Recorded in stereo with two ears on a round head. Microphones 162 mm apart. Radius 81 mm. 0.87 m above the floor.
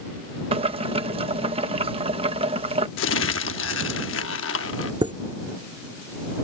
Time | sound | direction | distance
0.5 | boiling | 30° right (ahead or behind) | ?
3.0 | crumpling | 80° left | ?
5.0 | a chime | 25° right (ahead or behind) | ?